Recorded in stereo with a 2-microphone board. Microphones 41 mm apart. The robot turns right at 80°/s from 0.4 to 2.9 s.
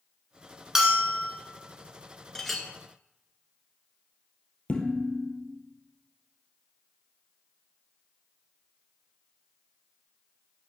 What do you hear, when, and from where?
0.8 s a bell: 20° right, 1.8 m; by 1.3 s 25° left, 1.8 m
2.4 s a clink: 15° left (ahead or behind), 1.0 m; by 2.7 s 5° right (ahead or behind), 1.0 m
4.7 s dishes clattering: 35° left (ahead or behind), 2 m